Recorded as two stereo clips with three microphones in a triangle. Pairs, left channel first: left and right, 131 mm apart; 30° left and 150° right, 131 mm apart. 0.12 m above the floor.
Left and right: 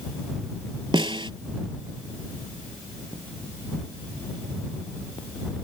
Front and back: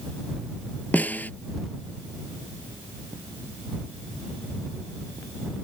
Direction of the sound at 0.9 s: 45° right.